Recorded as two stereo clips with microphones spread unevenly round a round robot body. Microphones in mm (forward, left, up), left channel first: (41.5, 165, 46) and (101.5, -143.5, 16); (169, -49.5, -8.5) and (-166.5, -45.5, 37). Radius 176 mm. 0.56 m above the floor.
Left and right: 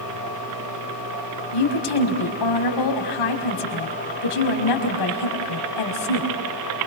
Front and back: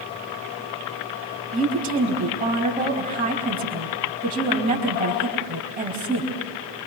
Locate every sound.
1.5 s a woman speaking: 110° left, 4.5 m